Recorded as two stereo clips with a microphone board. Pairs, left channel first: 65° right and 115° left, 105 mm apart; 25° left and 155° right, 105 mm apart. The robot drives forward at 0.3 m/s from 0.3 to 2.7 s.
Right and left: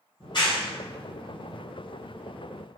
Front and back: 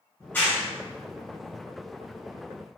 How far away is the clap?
About 1.1 m.